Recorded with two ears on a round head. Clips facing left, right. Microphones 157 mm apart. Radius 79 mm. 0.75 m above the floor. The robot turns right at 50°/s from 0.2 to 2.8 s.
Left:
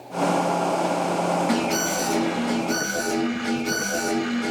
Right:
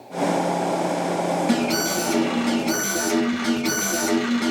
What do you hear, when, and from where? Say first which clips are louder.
1.5 s an alarm: right 2 dB; 145° right, 8.5 m; by 4.5 s 80° right, 8.5 m